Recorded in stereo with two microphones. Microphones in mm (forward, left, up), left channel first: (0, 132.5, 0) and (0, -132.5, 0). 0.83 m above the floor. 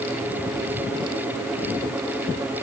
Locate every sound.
Only background noise.